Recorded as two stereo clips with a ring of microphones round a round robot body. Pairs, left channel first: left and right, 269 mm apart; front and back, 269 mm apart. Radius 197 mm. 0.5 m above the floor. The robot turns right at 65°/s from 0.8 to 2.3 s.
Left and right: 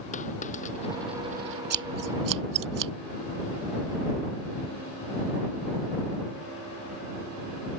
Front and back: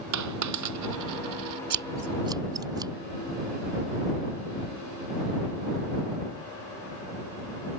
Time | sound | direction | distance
0.1 | a dropped coin | 160° left | ?
1.7 | scissors | 140° right | ?